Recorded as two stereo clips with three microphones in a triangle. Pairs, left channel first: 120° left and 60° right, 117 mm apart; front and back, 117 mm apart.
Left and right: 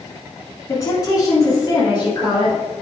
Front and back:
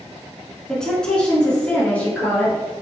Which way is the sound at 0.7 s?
80° left.